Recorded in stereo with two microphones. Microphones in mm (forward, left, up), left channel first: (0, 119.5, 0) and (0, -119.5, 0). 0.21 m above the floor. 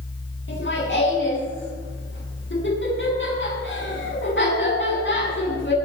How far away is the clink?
I don't hear a clink.